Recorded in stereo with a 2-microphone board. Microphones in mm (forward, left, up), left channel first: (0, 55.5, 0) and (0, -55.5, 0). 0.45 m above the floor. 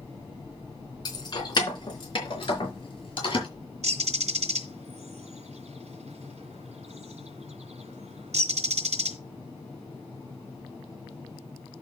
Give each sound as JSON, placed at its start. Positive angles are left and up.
{"t": 1.1, "sound": "keys jangling", "side_deg": 35, "distance_m": 3.0}
{"t": 3.8, "sound": "a bird", "side_deg": -80, "distance_m": 2.0}